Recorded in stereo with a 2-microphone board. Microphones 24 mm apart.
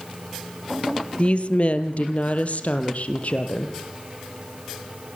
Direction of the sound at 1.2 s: 50° left (ahead or behind).